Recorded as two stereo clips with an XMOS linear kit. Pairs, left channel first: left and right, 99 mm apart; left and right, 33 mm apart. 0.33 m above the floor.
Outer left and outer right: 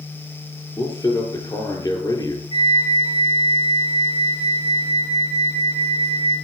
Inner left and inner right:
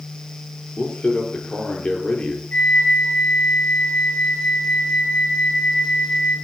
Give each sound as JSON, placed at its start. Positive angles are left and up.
{"t": 0.8, "sound": "a man speaking", "side_deg": 40, "distance_m": 8.5}
{"t": 2.5, "sound": "a flute", "side_deg": 55, "distance_m": 7.5}